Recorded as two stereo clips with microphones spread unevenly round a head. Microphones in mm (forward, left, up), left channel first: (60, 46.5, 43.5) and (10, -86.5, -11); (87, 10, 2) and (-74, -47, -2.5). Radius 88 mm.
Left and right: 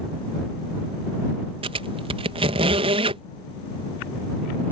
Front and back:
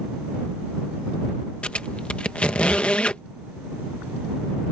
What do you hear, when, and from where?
1.6 s a squeak: 55° right